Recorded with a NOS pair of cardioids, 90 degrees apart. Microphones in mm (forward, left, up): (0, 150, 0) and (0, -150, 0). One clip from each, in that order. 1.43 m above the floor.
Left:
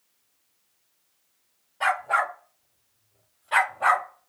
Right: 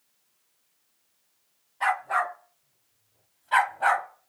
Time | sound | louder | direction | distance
1.8 | a dog barking | left 2 dB | 30° left | 3 m